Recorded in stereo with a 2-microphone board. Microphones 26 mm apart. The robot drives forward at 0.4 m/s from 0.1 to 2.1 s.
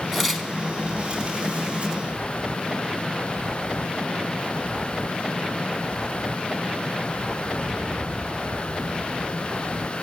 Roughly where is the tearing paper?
Centre.